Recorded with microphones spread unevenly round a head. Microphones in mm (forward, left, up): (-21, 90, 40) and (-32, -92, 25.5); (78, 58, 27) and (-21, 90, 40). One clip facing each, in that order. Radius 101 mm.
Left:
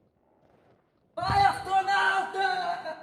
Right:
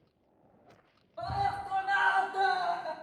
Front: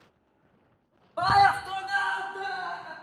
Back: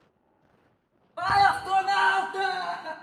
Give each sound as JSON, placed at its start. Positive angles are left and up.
{"t": 1.2, "sound": "a scream", "azimuth_deg": 50, "distance_m": 0.6}